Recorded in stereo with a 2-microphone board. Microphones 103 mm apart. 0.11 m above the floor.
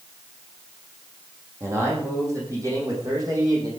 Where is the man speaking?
25° right (ahead or behind), 6.5 m; by 3.7 s 40° right (ahead or behind), 6.5 m.